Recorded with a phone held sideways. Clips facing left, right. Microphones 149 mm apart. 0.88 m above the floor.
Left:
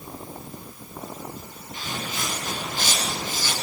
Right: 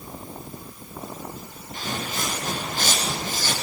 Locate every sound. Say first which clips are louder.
1.7 s footsteps: right 2 dB; 45° right (ahead or behind), 8 m